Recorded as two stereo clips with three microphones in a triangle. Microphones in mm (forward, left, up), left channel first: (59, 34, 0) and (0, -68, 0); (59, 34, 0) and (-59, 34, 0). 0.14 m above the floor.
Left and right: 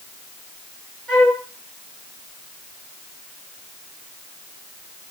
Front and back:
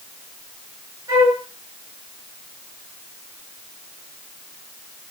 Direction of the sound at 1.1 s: 140° left.